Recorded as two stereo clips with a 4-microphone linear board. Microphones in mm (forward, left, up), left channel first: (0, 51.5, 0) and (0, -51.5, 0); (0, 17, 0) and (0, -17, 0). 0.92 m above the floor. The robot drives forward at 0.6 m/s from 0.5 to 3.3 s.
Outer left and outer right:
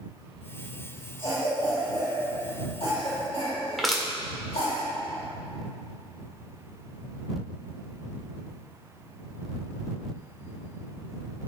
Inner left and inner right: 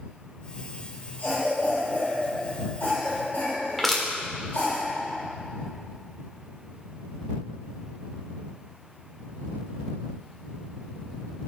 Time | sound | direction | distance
1.2 | a cough | 55° left (ahead or behind) | 3 m
3.8 | crushing | centre (ahead or behind) | 1.5 m